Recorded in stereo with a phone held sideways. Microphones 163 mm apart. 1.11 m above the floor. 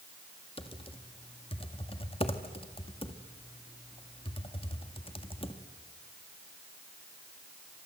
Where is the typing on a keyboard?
30° left (ahead or behind), 1.9 m.